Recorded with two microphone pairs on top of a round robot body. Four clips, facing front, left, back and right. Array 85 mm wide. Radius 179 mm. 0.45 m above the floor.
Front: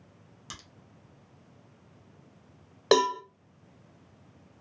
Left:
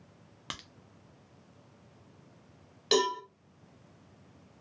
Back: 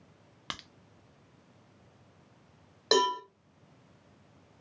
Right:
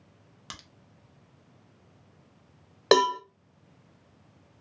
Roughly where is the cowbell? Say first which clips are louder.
Right 7 dB, front 3 dB; ahead right.